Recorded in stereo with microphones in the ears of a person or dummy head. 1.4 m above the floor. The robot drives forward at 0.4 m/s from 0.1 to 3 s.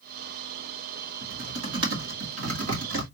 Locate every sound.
1.2 s typing on a keyboard: 70° right (ahead or behind), 2.5 m; by 3.0 s 80° right, 2.5 m